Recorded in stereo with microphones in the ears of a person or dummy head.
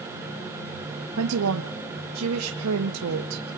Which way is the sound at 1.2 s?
80° right.